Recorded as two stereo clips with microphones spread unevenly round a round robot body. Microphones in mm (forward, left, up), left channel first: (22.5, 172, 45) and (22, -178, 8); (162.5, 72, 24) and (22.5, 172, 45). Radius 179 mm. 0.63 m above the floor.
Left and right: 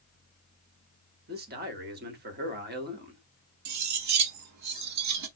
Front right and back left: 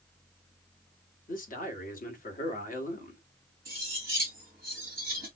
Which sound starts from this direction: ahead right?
A man speaking, at 1.3 s.